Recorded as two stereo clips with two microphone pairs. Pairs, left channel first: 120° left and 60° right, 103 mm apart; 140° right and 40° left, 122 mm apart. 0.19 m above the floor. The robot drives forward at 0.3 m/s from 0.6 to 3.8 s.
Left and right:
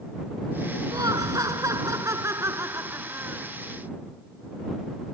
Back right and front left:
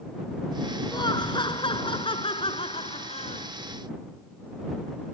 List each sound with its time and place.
0.9 s laughter: 100° right; by 3.5 s 120° right